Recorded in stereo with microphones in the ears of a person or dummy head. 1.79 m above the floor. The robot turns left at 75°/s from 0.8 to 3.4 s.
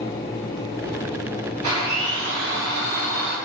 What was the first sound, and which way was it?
A blender, 150° right.